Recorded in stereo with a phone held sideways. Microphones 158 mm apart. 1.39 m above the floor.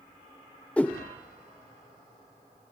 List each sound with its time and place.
0.8 s a whoosh: 10° left (ahead or behind), 0.6 m